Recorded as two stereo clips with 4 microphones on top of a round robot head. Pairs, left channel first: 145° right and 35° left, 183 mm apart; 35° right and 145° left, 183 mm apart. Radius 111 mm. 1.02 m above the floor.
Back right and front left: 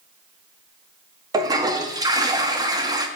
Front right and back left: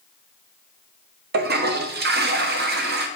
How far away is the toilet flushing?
About 0.8 m.